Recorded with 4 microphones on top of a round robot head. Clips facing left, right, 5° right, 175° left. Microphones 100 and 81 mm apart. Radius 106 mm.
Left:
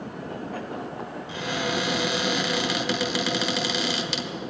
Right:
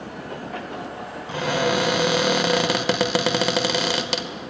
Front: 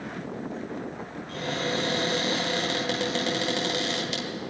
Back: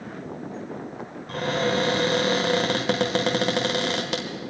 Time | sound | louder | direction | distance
1.3 | a cupboard door | right 7 dB, back 6 dB | 125° right | 1.1 m